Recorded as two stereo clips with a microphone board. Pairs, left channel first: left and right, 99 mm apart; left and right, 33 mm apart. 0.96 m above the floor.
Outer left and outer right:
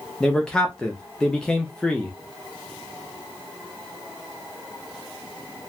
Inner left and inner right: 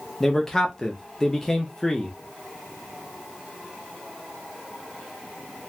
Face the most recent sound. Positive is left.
turn(degrees=10)  # may be behind; listen again after turning